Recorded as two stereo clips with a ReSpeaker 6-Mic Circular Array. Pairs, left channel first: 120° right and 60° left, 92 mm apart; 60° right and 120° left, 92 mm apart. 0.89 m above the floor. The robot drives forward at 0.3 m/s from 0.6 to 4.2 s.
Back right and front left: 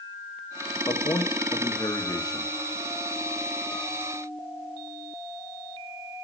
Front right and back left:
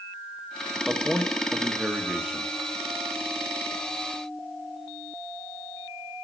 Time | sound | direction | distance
0.9 | a man speaking | 155° right | 1.2 m